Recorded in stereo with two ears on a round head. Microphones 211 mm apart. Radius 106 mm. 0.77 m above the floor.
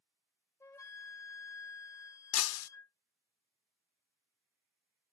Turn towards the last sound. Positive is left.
turn(degrees=65)  # may be behind; listen again after turning